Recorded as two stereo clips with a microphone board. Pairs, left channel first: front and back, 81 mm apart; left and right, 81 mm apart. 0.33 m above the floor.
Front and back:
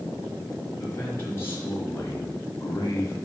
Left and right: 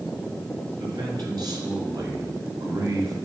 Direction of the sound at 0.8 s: 60° right.